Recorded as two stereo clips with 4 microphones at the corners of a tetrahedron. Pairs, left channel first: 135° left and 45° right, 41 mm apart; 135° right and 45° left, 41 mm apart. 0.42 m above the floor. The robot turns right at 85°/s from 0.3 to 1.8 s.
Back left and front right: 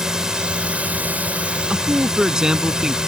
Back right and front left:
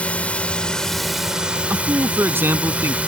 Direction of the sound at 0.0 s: 110° right.